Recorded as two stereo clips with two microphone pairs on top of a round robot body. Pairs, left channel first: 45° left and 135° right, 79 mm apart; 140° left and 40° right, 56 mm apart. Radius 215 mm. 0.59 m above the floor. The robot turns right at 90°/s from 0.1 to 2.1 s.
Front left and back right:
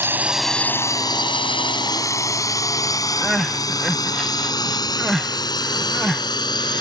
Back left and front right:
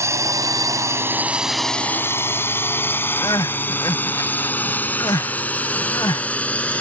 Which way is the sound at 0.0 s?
70° right.